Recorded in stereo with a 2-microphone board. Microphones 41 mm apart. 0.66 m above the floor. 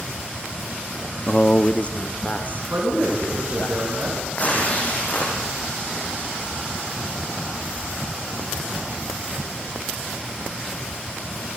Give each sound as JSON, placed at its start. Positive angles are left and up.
{"t": 1.3, "sound": "a man speaking", "side_deg": 25, "distance_m": 0.6}
{"t": 2.7, "sound": "a man speaking", "side_deg": -65, "distance_m": 8.5}
{"t": 4.3, "sound": "tearing paper", "side_deg": 40, "distance_m": 7.5}